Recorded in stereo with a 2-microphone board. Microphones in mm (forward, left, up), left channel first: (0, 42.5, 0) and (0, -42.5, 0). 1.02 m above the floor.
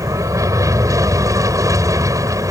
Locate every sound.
0.0 s an aircraft: 40° right (ahead or behind)